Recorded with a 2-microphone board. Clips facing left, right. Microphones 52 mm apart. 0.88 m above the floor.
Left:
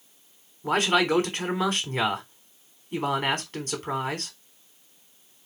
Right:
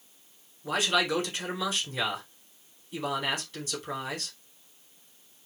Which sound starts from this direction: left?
A man speaking, at 0.6 s.